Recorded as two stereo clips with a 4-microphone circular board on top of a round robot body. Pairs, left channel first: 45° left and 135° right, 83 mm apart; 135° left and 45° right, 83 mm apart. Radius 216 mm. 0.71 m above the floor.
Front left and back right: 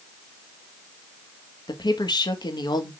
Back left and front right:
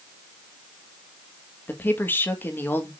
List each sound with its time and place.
1.7 s a woman speaking: 70° left, 1.9 m